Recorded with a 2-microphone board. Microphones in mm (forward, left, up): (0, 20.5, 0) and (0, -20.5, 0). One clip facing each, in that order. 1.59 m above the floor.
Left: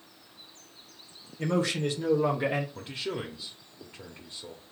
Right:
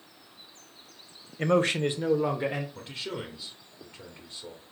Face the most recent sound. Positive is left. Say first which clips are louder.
# left 2 dB
turn(degrees=20)  # may be behind; listen again after turning